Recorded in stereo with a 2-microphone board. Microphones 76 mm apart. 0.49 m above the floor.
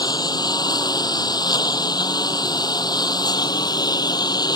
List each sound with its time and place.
0.0 s a lawn mower: 65° left (ahead or behind)